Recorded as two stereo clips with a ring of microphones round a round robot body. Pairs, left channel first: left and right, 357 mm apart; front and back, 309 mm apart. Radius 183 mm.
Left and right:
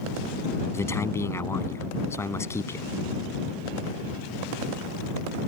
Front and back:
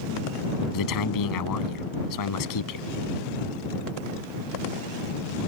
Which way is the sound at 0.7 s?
5° left.